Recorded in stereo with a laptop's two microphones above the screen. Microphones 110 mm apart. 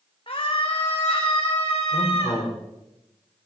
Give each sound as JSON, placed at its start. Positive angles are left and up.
{"t": 0.3, "sound": "a scream", "side_deg": 50, "distance_m": 1.6}
{"t": 1.9, "sound": "a man speaking", "side_deg": 50, "distance_m": 4.5}